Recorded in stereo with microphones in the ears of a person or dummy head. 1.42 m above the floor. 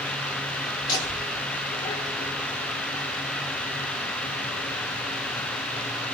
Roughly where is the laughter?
Left.